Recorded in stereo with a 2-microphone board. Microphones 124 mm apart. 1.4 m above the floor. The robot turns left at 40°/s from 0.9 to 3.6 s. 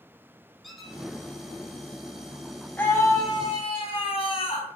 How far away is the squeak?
About 2.5 m.